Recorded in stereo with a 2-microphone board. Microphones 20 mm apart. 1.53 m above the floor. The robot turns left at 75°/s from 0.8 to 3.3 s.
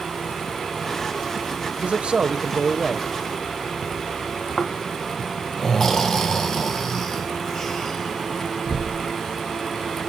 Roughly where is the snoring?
Left.